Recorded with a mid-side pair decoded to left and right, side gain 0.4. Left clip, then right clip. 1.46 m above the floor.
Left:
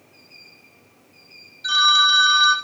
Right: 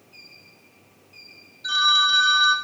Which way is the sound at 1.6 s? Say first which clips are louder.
Left 3 dB; 50° left.